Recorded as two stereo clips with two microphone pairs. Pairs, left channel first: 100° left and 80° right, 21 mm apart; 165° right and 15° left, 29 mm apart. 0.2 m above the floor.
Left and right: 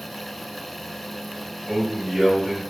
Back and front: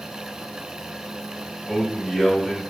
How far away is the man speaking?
About 1.8 m.